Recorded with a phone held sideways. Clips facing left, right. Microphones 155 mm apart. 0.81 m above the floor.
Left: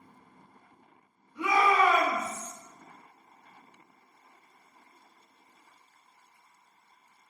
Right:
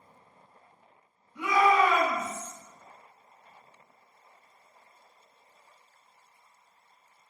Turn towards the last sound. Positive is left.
turn(degrees=10)  # may be behind; listen again after turning